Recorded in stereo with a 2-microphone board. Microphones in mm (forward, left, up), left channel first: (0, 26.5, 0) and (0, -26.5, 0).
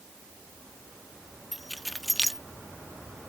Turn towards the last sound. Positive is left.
turn(degrees=0)  # may be behind; listen again after turning